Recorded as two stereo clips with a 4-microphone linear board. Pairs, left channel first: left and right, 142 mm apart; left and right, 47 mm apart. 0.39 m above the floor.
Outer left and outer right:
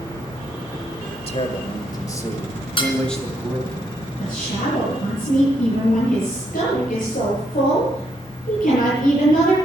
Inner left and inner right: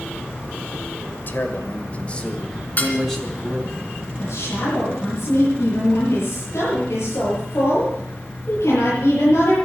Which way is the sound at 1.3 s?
45° left (ahead or behind).